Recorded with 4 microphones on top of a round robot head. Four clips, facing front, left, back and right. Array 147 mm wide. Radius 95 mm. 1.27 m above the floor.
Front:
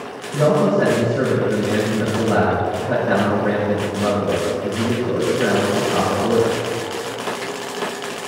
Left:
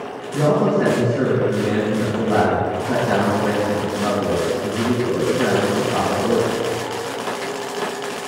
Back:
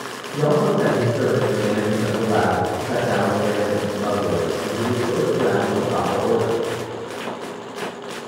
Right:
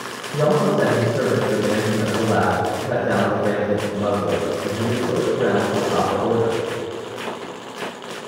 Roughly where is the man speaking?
Ahead right.